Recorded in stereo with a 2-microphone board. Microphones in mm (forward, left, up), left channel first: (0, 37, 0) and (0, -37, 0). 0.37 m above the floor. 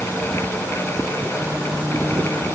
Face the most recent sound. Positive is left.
No sound to turn to.